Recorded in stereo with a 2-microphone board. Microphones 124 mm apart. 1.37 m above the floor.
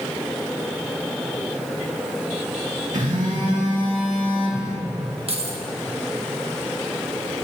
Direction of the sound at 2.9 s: 80° right.